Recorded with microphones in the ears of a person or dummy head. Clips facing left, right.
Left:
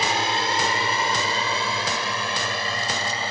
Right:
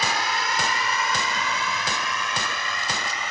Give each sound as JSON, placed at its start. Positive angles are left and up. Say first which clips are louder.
{"t": 0.0, "sound": "a drone", "louder": "left 3 dB", "side_deg": 25}